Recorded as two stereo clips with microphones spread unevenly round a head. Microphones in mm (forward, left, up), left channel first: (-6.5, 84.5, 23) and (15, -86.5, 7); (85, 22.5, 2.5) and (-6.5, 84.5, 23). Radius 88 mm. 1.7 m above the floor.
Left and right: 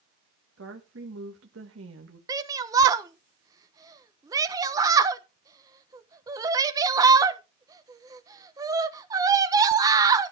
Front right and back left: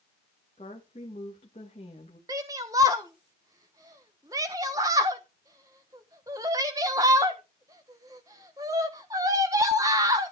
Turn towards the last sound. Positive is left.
turn(degrees=-155)